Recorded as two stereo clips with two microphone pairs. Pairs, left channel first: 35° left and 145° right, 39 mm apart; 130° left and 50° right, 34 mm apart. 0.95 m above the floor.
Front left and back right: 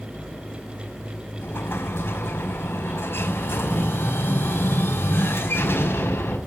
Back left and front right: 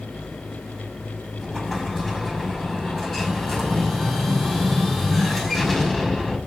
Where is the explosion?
45° left, 5 m.